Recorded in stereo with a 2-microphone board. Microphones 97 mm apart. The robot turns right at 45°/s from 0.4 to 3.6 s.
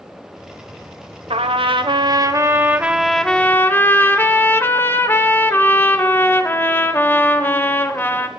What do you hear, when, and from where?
1.3 s a trumpet: 80° right, 0.7 m; by 8.3 s 20° left, 0.7 m